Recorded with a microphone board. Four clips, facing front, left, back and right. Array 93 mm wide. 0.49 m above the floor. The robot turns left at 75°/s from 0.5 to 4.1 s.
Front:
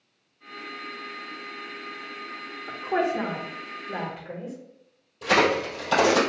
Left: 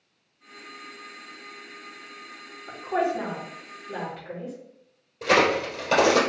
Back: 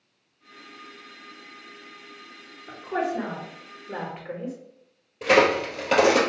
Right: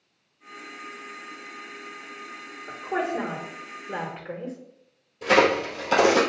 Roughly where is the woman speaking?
Ahead right.